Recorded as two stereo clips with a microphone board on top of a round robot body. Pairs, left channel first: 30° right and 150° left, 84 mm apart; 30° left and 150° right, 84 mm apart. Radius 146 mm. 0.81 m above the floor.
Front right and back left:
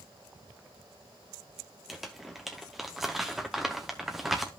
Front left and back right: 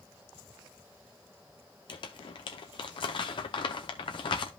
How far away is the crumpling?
About 0.6 m.